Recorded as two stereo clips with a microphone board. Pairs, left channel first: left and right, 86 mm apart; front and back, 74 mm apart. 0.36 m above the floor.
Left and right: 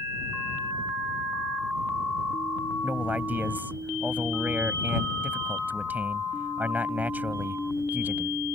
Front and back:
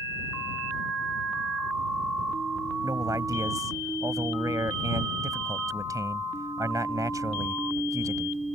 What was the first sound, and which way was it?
A man speaking, 155° right.